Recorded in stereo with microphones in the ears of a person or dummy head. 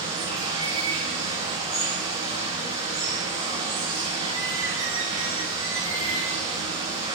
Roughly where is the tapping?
No tapping in this recording.